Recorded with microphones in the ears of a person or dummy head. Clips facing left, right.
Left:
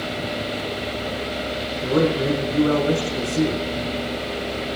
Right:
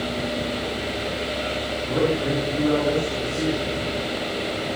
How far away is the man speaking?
About 4.5 m.